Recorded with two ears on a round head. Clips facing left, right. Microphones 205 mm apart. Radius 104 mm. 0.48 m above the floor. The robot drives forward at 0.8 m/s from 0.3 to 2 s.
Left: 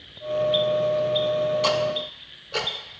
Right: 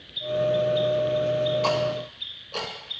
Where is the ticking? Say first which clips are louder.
Left 1 dB; 20° left (ahead or behind), 0.8 m; by 2.7 s 15° left (ahead or behind), 1.1 m.